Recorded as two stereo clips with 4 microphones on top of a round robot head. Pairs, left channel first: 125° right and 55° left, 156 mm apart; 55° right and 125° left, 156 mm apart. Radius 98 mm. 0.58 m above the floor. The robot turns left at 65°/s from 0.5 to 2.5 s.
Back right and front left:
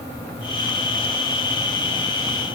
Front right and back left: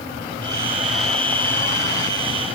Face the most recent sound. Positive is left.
No sound to turn to.